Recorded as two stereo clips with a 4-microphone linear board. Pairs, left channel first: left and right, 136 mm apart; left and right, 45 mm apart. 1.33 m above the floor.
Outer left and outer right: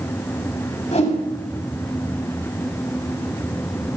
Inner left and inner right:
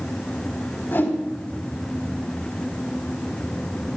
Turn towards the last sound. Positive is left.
turn(degrees=55)  # may be behind; listen again after turning